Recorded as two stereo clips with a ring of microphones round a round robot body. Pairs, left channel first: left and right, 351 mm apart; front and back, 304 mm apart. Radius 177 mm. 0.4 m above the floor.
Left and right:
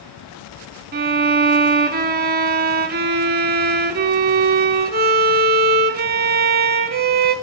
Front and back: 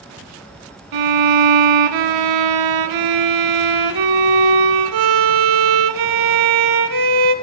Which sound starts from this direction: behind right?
A violin, at 0.9 s.